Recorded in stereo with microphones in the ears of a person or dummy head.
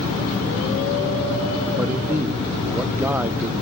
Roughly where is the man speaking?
Centre.